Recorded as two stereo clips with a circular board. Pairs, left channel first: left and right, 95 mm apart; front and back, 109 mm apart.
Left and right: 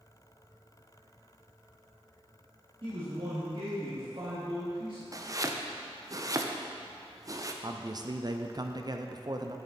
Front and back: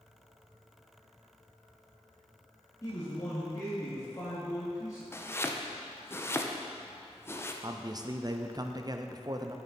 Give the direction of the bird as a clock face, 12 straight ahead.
I don't hear a bird.